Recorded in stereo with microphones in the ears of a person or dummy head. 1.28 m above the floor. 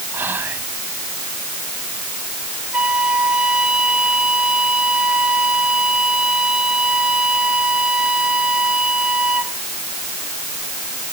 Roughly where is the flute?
Centre.